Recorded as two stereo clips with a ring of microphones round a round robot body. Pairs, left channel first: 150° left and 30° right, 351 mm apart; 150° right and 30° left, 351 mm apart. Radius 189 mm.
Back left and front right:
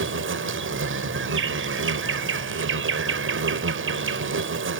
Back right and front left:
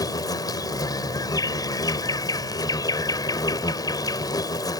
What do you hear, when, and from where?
0.0 s an insect: 75° right